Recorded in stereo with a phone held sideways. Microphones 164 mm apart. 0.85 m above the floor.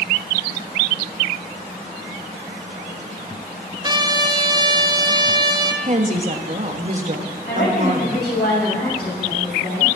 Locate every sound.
3.8 s a trumpet: 25° right (ahead or behind), 0.9 m
5.8 s a woman speaking: 45° right (ahead or behind), 1.3 m
7.5 s a woman speaking: 70° left (ahead or behind), 6 m